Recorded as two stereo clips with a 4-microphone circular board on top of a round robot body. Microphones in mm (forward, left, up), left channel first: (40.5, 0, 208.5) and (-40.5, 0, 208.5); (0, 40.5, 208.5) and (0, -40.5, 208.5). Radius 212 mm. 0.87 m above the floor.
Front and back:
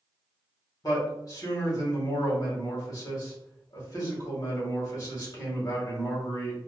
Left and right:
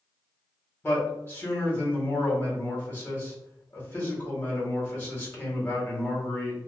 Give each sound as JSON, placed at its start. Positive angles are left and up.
{"t": 0.8, "sound": "a man speaking", "azimuth_deg": 30, "distance_m": 1.6}